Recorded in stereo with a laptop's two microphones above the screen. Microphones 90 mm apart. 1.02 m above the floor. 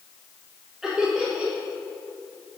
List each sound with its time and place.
0.8 s laughter: 5° right (ahead or behind), 1.3 m